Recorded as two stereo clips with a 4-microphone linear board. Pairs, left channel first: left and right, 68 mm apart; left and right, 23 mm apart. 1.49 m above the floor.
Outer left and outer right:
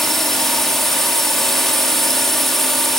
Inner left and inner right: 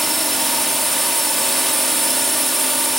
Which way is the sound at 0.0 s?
5° left (ahead or behind).